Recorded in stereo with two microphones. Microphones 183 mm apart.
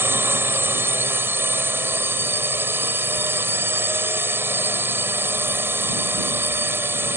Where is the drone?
10° right (ahead or behind).